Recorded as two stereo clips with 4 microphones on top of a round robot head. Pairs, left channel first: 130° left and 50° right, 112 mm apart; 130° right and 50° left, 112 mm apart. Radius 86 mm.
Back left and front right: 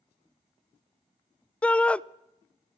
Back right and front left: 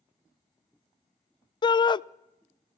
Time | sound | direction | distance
1.6 | a shout | 155° right | 0.5 m